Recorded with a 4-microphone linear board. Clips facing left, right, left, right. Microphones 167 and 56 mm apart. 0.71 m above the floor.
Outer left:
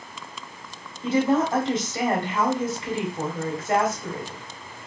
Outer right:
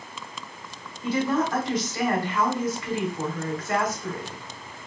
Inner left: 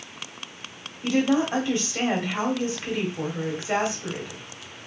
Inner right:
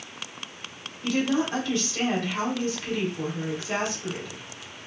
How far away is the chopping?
No chopping in this recording.